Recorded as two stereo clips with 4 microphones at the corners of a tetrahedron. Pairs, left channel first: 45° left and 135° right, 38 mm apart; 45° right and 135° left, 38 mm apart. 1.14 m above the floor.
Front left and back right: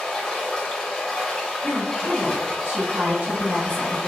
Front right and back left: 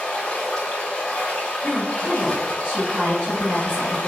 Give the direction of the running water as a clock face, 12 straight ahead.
12 o'clock.